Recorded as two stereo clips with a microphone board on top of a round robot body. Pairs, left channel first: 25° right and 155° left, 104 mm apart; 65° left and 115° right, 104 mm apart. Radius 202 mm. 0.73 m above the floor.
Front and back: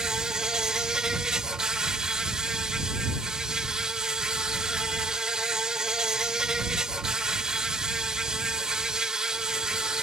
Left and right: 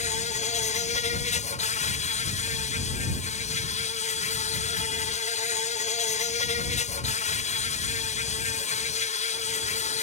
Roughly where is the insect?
Left.